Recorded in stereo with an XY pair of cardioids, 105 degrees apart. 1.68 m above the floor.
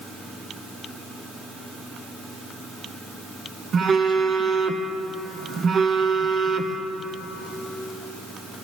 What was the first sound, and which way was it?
A phone buzzing, 45° right.